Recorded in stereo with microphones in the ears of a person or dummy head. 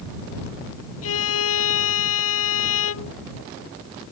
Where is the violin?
80° left.